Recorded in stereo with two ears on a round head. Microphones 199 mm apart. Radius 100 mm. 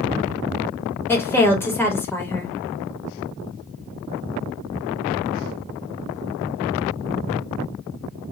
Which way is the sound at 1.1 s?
10° left (ahead or behind).